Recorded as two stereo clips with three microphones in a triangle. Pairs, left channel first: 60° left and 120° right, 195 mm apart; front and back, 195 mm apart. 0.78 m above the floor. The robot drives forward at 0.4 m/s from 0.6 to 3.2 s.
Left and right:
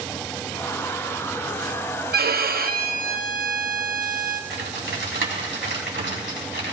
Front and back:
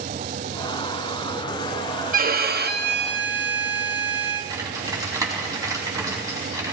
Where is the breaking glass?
No breaking glass in this recording.